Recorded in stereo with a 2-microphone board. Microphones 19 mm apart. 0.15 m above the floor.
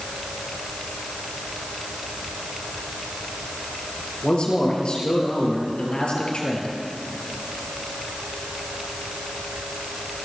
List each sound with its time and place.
4.2 s a man speaking: 55° left (ahead or behind), 4 m